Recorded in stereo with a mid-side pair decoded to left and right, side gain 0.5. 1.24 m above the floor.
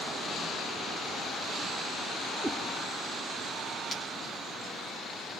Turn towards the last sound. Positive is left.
turn(degrees=30)